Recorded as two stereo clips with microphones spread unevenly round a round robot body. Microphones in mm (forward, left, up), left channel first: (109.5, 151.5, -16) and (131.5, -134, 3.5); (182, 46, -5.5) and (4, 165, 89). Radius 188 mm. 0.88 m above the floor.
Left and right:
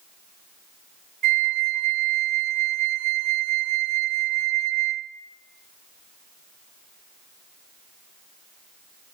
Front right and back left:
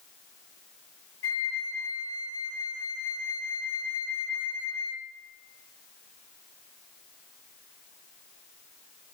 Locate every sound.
1.2 s a flute: 85° right, 1.0 m